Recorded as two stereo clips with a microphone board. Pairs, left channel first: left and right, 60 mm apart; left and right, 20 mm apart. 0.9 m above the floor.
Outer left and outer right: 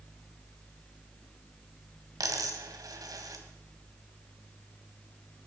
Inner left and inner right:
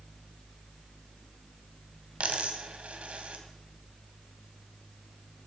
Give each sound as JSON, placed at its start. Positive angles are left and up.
{"t": 2.2, "sound": "a dropped coin", "side_deg": -80, "distance_m": 2.5}